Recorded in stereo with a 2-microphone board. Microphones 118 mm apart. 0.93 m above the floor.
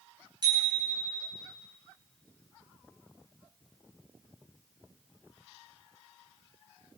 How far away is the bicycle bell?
About 8 m.